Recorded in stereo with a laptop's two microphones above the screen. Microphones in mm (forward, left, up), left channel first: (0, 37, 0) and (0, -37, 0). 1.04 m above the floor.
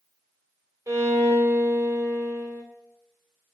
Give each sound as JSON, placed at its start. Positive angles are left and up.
{"t": 0.9, "sound": "a violin", "side_deg": -45, "distance_m": 2.5}